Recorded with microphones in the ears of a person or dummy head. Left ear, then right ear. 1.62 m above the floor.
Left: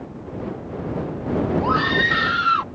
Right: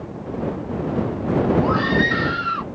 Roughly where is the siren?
I don't hear a siren.